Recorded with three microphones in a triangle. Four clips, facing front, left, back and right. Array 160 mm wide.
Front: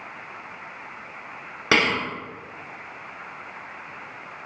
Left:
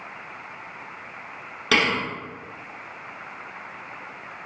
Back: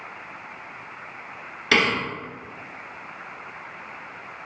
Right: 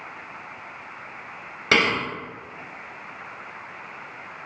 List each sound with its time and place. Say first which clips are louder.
1.7 s a thud: right 1 dB, even; 15° right, 1.3 m